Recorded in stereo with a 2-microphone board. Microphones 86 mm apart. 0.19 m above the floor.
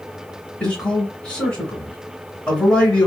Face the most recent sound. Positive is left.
turn(degrees=10)  # may be behind; listen again after turning